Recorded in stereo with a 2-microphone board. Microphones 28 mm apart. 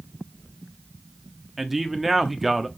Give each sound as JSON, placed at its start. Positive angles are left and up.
{"t": 1.6, "sound": "a man speaking", "side_deg": -5, "distance_m": 1.1}